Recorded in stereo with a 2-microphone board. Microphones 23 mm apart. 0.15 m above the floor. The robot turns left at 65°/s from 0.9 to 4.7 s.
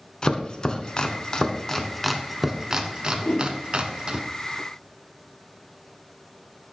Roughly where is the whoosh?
Left.